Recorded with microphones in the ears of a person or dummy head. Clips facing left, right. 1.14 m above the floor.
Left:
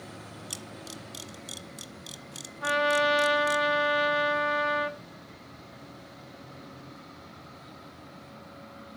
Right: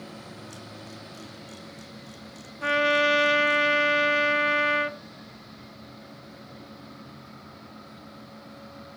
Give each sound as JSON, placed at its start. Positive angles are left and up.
{"t": 0.5, "sound": "a camera shutter", "side_deg": 80, "distance_m": 1.4}
{"t": 2.6, "sound": "a trumpet", "side_deg": -40, "distance_m": 0.9}